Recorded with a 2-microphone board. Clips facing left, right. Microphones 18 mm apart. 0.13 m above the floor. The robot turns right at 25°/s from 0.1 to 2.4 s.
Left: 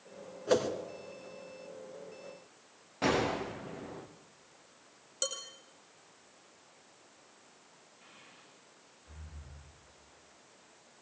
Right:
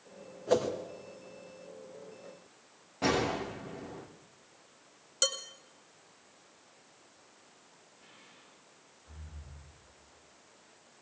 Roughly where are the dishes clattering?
Right.